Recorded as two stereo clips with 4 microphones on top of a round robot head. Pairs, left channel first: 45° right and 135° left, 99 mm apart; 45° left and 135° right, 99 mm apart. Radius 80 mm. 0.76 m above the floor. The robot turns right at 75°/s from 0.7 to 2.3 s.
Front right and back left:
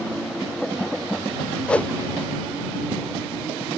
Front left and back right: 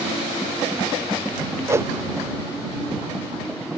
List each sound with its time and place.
1.7 s a whoosh: 115° right; by 1.9 s 95° right